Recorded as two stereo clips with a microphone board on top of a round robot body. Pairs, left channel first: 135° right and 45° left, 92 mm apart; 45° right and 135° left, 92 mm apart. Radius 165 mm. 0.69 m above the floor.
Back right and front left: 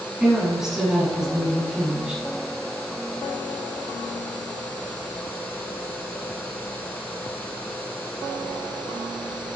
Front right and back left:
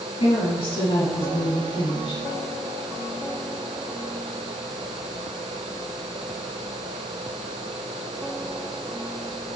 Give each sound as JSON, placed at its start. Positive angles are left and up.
{"t": 0.2, "sound": "a woman speaking", "azimuth_deg": -40, "distance_m": 7.5}